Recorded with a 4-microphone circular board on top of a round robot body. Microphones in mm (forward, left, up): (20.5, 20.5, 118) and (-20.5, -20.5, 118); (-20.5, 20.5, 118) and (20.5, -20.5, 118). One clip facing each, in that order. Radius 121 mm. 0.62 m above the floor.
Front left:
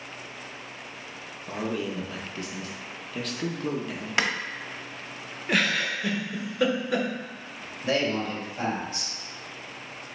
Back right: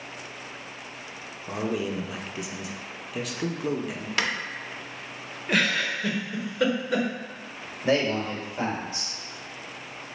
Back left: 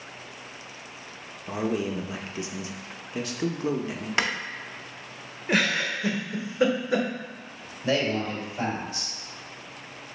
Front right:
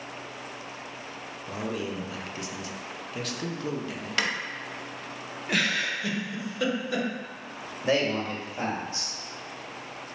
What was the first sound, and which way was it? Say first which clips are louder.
A man speaking: back right 2 dB, back left 5 dB; 155° left.